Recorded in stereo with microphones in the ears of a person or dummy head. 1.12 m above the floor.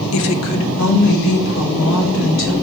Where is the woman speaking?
70° left (ahead or behind), 0.5 m; by 2.5 s 60° left (ahead or behind), 2.5 m.